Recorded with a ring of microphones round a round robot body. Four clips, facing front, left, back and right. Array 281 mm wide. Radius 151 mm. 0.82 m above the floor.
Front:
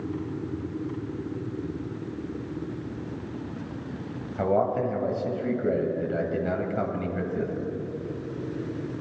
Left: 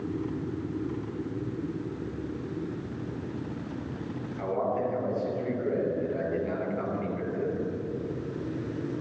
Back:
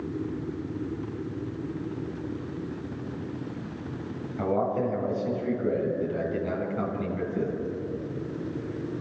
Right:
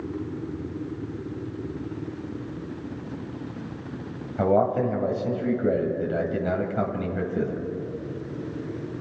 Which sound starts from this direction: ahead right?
A man speaking, at 4.4 s.